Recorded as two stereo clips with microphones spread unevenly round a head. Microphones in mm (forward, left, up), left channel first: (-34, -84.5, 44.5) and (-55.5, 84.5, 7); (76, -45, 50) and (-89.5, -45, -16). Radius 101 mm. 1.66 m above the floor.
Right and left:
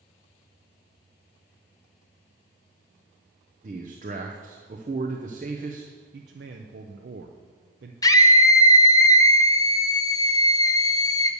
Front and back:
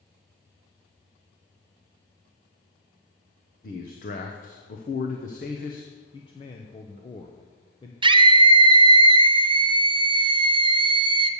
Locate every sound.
3.6 s a man speaking: 40° left, 0.7 m
6.1 s a man speaking: 55° left, 0.5 m
8.0 s a scream: 105° right, 0.6 m